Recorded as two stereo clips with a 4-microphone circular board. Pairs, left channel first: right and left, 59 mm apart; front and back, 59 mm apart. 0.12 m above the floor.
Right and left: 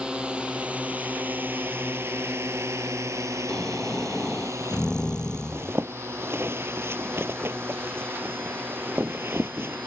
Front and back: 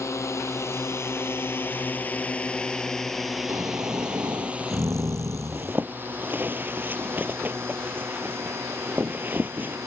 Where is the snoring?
165° right.